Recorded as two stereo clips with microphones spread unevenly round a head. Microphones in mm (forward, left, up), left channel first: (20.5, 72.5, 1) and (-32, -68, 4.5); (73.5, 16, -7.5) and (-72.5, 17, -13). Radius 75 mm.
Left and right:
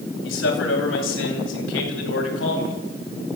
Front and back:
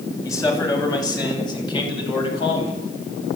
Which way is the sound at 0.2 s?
70° left.